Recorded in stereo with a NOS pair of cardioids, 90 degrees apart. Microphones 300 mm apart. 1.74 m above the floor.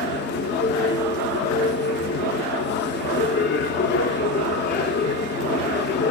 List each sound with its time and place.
0.0 s a machine running: 35° left, 0.9 m